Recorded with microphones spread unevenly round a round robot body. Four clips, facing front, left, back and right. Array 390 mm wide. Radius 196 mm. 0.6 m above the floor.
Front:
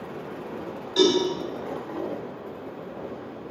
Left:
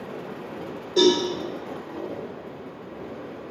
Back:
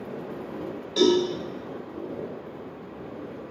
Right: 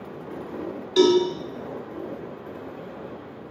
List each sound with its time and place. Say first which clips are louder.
1.0 s a cowbell: right 2 dB, even; 95° right, 3 m